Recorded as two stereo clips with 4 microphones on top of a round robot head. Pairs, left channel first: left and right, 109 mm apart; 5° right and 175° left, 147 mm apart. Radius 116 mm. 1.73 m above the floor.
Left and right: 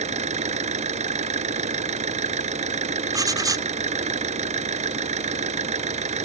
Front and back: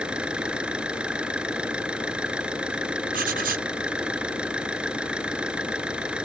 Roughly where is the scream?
No scream in this recording.